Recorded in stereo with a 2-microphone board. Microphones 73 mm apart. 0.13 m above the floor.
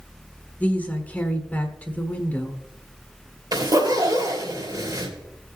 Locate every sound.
0.6 s a woman speaking: 20° left (ahead or behind), 1.4 m
3.5 s a zipper: 65° right (ahead or behind), 3 m